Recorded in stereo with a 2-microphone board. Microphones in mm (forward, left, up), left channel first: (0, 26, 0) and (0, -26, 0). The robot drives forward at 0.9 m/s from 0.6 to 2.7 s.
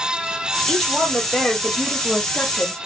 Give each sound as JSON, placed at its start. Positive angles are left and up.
{"t": 0.7, "sound": "a woman speaking", "side_deg": 0, "distance_m": 1.8}